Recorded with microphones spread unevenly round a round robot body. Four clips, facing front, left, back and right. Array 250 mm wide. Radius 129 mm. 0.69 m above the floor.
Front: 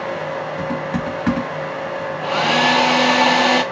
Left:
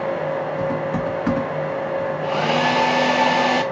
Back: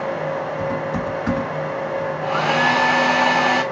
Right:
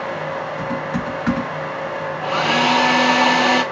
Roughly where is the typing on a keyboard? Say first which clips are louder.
Left 2 dB, even; ahead.